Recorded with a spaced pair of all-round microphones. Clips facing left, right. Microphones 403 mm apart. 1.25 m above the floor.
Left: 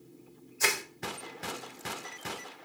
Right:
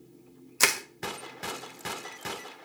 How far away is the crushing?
About 0.6 m.